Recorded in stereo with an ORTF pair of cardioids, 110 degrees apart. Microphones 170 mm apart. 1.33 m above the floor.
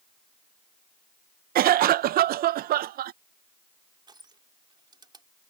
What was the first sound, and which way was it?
A cough, 60° right.